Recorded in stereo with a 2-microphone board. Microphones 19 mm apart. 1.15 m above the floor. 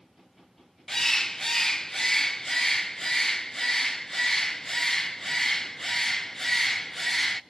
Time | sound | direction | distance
0.9 | a bird | 25° left (ahead or behind) | 0.6 m